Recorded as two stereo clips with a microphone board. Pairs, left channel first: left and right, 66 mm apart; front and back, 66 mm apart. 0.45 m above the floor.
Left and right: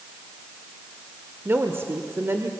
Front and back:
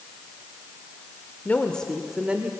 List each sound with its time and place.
1.4 s a woman speaking: 50° right, 1.3 m; by 2.5 s 125° right, 1.4 m